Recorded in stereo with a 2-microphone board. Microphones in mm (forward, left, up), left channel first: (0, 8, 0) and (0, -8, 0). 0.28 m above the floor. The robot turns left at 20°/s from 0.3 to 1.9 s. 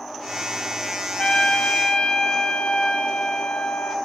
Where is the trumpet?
80° left, 0.9 m; by 4.0 s 65° left (ahead or behind), 0.9 m.